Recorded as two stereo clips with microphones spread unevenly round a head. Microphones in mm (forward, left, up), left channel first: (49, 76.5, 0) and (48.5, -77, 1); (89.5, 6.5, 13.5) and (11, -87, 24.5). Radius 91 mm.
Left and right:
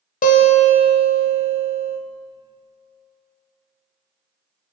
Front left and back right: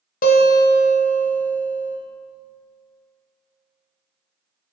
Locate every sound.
0.2 s a guitar: 60° left, 1.0 m